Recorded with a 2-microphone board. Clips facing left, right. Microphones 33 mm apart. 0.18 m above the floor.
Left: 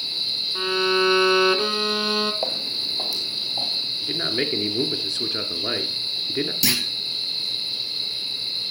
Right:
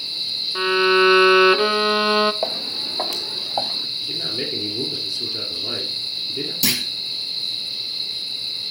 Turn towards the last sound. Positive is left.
turn(degrees=0)  # may be behind; listen again after turning